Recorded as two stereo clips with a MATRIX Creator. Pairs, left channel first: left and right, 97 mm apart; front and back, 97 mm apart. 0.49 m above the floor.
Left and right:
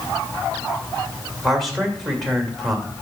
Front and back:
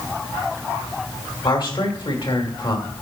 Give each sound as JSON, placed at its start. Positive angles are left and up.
{"t": 1.4, "sound": "a man speaking", "azimuth_deg": 0, "distance_m": 1.9}